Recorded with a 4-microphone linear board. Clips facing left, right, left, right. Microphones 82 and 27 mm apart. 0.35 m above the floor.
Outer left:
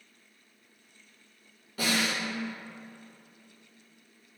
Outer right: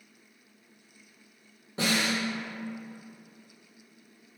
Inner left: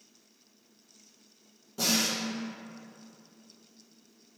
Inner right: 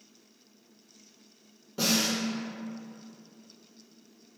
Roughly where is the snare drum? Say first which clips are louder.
Outer right 1 dB, inner right 1 dB; right.